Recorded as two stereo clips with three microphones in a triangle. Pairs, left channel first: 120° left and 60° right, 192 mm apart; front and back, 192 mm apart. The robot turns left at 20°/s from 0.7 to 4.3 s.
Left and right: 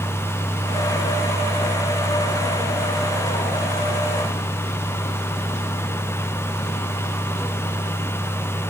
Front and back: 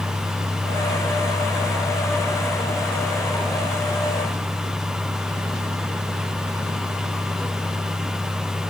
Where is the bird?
No bird in this recording.